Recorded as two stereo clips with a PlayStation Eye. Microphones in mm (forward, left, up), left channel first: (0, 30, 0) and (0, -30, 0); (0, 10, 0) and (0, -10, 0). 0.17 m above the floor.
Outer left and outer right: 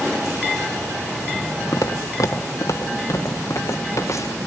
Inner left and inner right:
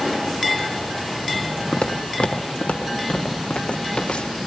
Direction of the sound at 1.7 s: 70° left (ahead or behind).